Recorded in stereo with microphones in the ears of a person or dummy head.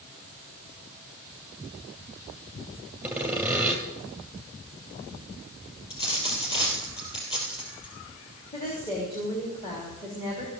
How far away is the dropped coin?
About 3.5 m.